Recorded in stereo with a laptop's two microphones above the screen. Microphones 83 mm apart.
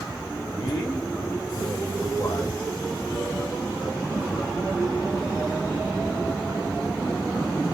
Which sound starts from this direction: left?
A man speaking, at 0.5 s.